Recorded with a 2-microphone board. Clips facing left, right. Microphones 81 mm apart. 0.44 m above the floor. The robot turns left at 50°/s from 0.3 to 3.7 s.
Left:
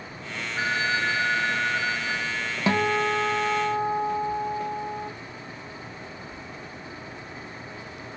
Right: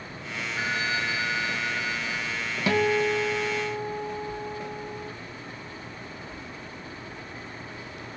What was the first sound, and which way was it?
A phone ringing, 165° left.